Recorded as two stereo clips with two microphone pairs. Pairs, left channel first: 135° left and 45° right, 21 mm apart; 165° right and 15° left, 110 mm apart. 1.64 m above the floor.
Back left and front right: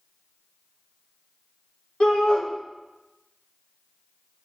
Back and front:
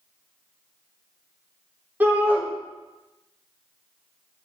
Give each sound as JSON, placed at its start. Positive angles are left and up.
{"t": 2.0, "sound": "a shout", "azimuth_deg": 90, "distance_m": 1.3}